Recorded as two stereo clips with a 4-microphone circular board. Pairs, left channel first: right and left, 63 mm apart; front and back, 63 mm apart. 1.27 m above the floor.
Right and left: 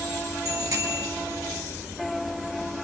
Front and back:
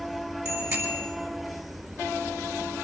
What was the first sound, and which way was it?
A bicycle bell, 130° left.